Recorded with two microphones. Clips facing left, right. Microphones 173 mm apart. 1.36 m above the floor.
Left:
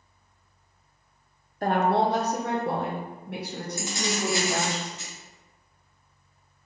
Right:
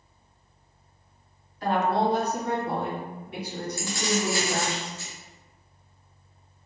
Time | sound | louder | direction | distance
1.6 | a woman speaking | left 1 dB | 50° left (ahead or behind) | 0.5 m
3.8 | keys jangling | right 2 dB | 20° left (ahead or behind) | 0.7 m